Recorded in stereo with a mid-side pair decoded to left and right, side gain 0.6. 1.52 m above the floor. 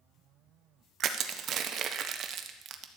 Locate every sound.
1.0 s crushing: 50° right, 1.2 m